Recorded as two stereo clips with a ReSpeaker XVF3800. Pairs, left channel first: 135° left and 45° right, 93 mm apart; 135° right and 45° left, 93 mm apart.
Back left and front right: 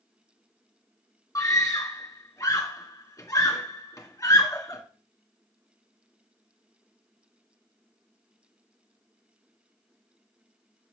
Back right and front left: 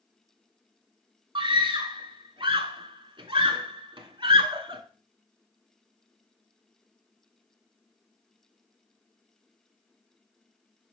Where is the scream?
75° left, 2 m.